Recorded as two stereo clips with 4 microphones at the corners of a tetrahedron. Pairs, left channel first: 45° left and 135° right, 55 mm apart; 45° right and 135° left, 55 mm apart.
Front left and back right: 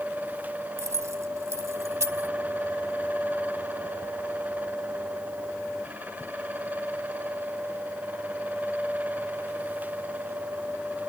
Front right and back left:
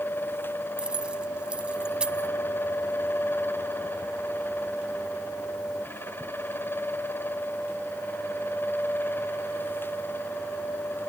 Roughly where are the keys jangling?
Behind right.